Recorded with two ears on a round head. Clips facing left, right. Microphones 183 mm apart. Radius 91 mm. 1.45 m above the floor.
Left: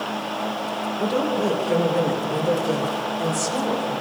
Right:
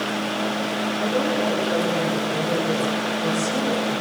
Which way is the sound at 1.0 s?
60° left (ahead or behind).